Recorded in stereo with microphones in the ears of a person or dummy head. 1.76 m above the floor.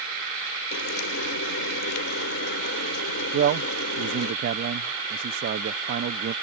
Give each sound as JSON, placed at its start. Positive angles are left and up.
{"t": 0.7, "sound": "frying", "side_deg": 70}
{"t": 3.3, "sound": "a man speaking", "side_deg": -55}